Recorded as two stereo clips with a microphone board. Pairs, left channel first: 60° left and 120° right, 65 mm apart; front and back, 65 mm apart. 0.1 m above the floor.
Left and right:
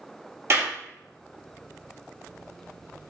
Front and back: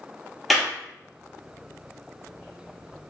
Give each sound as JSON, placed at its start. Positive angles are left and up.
{"t": 0.5, "sound": "a clap", "azimuth_deg": -90, "distance_m": 2.5}